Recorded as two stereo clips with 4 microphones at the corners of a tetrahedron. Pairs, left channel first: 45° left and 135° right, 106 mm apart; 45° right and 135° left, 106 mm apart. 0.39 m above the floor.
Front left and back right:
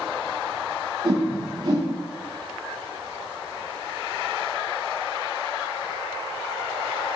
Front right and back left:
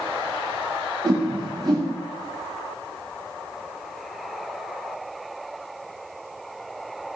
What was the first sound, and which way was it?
A whoosh, straight behind.